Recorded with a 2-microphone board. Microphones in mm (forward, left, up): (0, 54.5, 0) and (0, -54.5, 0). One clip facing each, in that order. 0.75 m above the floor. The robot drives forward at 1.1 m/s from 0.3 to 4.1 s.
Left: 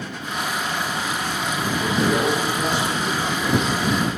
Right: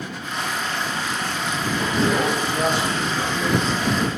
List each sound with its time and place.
1.8 s a man speaking: 45° right (ahead or behind), 5.5 m; by 4.0 s 70° right (ahead or behind), 4.5 m